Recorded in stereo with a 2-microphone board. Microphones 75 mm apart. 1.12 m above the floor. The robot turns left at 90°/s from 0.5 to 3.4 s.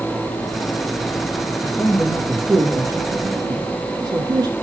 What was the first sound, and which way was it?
A man speaking, 35° left (ahead or behind).